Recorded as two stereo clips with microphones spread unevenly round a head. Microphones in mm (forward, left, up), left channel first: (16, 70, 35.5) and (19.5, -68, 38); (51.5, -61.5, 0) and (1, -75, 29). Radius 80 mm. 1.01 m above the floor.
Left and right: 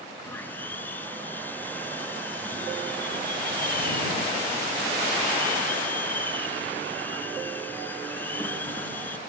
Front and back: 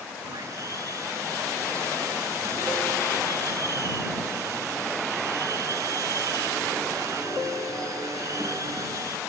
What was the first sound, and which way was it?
Sawing, 170° left.